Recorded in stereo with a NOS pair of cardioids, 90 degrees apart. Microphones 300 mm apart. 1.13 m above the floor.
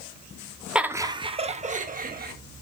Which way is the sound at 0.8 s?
Straight ahead.